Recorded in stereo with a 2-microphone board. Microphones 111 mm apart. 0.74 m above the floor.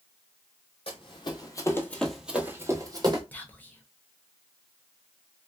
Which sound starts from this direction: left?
Running footsteps, at 0.9 s.